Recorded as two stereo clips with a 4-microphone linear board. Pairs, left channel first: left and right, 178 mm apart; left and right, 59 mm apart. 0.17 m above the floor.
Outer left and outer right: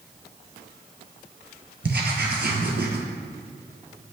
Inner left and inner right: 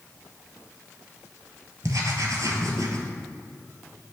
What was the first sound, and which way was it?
Writing, 70° right (ahead or behind).